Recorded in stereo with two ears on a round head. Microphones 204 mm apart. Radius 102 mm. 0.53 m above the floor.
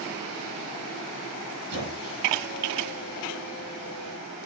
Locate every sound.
1.7 s a squeak: 75° right (ahead or behind), 4.5 m